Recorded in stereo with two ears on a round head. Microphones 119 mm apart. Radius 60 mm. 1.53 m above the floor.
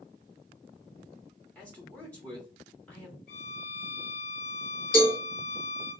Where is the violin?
60° left (ahead or behind), 1.7 m.